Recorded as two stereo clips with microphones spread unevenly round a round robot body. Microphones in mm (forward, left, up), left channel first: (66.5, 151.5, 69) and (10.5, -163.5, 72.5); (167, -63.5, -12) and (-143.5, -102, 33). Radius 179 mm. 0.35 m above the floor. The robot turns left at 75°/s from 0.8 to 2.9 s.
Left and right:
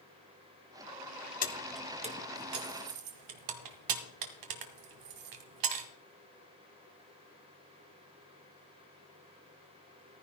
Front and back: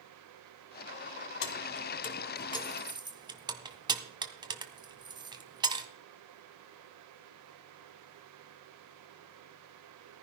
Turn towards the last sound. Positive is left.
turn(degrees=-95)